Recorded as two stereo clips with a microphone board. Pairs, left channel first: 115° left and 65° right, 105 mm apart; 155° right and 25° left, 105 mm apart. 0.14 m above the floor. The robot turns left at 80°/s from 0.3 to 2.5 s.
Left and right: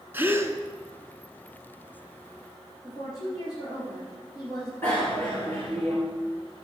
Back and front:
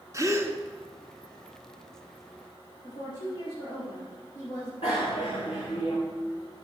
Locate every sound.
0.1 s a gasp: 10° right, 1.4 m; by 0.6 s 30° right, 1.4 m
2.8 s a woman speaking: 165° left, 8.5 m
4.8 s a bicycle bell: 175° right, 8 m